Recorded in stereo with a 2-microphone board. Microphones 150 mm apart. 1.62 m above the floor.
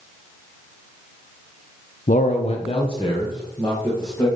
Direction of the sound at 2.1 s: 65° left (ahead or behind).